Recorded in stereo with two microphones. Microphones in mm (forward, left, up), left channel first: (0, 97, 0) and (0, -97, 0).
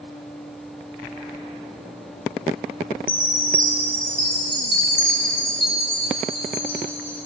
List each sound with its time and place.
3.1 s a chime: 25° left (ahead or behind), 1.5 m